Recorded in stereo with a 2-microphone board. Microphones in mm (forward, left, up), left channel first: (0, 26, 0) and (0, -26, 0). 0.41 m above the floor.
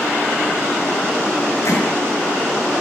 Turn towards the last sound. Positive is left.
turn(degrees=65)  # may be behind; listen again after turning